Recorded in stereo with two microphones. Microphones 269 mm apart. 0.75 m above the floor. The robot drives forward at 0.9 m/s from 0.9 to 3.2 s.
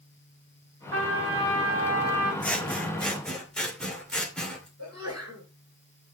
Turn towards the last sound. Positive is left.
turn(degrees=-60)  # may be behind; listen again after turning